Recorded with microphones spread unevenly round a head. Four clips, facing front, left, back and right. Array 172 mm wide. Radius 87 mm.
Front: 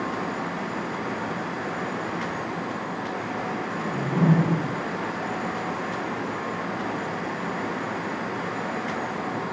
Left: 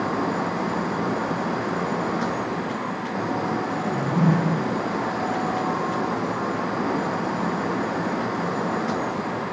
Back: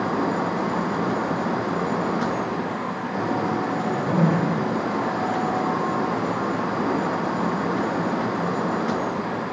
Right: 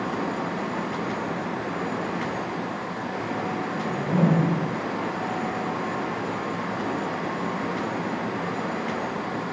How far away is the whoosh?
About 7.5 m.